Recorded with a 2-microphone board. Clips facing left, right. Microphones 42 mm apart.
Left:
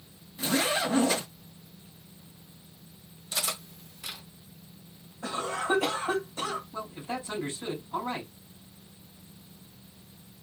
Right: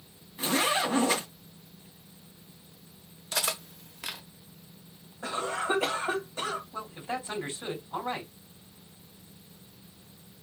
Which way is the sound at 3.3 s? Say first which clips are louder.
Right 2 dB; 80° right.